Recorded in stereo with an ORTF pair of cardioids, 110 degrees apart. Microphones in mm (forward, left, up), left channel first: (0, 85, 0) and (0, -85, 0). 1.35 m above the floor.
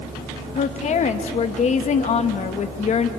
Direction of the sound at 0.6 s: 45° left.